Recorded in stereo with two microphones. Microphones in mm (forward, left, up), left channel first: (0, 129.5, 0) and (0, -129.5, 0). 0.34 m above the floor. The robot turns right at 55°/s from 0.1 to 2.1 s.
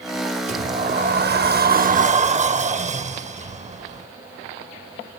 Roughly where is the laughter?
I don't hear laughter.